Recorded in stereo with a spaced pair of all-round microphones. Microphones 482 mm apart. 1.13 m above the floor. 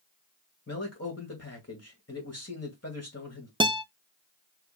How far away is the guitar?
About 0.6 m.